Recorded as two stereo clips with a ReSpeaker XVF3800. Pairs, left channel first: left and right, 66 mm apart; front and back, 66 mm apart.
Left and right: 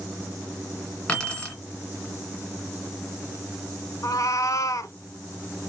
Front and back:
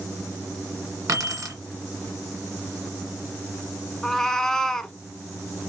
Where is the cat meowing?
85° left, 0.5 m.